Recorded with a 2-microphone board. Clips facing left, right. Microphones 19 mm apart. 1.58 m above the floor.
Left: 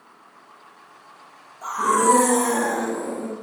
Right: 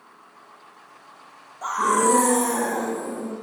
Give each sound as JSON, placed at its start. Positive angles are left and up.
{"t": 1.6, "sound": "a scream", "side_deg": -25, "distance_m": 1.1}